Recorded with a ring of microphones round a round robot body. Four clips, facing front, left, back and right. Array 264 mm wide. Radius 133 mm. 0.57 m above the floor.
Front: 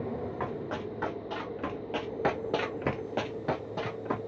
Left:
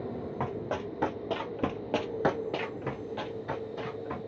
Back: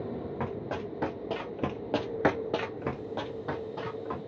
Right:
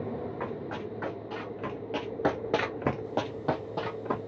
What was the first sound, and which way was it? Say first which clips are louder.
Running footsteps: left 2 dB, even; 125° left.